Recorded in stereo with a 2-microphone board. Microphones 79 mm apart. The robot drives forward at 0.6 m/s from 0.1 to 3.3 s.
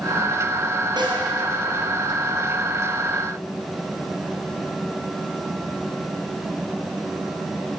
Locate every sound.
1.0 s a snare drum: 65° right (ahead or behind), 2.5 m; by 1.2 s 70° right (ahead or behind), 2.5 m